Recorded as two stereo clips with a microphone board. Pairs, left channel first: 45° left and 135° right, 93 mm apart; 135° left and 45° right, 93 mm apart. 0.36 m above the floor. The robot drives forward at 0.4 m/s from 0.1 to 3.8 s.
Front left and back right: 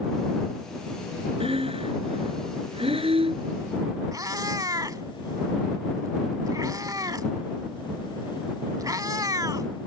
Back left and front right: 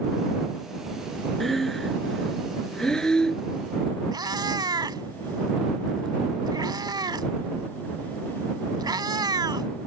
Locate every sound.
1.4 s breathing: 135° right; by 3.5 s 145° right
4.1 s a cat meowing: 85° right